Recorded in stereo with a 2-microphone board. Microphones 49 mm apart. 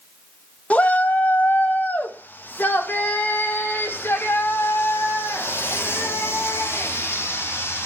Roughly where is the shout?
Left.